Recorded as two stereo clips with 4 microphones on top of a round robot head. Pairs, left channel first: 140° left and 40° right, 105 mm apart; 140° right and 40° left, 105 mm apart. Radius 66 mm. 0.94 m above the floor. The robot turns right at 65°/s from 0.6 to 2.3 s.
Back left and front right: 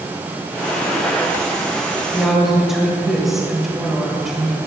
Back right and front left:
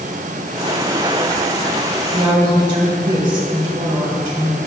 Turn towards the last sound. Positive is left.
turn(degrees=45)